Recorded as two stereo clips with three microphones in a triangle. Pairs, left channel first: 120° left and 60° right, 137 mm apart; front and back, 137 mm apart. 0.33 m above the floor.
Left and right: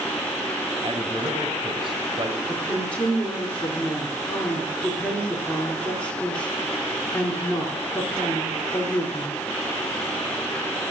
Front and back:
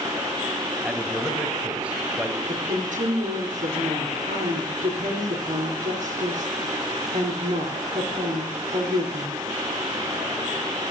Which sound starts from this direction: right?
A man speaking, at 0.8 s.